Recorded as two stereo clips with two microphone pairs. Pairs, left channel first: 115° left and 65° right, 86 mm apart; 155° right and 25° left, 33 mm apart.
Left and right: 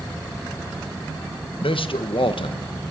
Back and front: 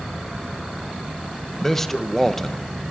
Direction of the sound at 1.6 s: 120° left.